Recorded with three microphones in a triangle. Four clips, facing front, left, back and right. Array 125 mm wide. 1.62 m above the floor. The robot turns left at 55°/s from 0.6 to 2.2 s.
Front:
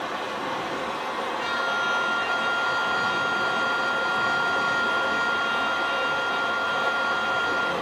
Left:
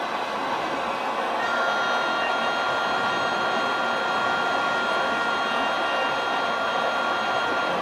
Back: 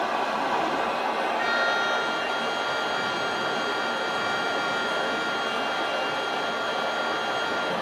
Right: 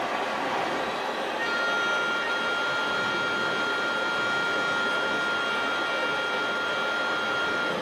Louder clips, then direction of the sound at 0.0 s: Left 1 dB, back 4 dB; 175° right.